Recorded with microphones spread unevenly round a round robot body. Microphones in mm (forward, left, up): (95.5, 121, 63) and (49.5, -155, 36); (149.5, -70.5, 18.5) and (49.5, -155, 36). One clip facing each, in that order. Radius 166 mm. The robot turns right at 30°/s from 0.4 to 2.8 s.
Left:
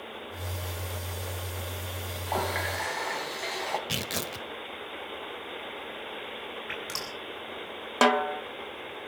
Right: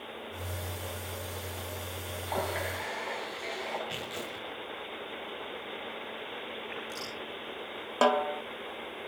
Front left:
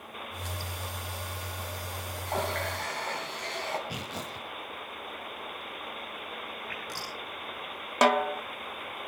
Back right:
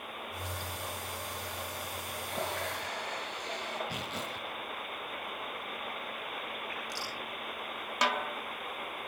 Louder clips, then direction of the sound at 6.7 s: Left 1 dB, front left 1 dB; 105° left.